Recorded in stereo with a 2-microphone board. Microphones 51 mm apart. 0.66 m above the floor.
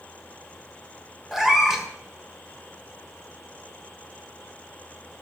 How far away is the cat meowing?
About 1.4 m.